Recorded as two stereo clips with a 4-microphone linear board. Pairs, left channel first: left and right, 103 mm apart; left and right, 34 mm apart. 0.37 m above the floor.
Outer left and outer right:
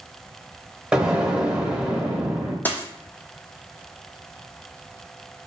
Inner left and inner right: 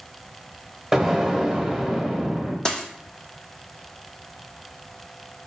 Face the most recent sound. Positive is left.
turn(degrees=15)  # may be behind; listen again after turning